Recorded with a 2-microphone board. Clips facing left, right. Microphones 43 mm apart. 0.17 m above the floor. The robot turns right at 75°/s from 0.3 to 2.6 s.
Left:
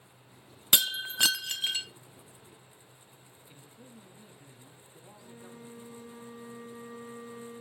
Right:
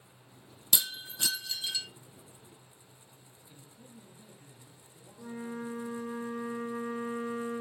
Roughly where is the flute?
Right.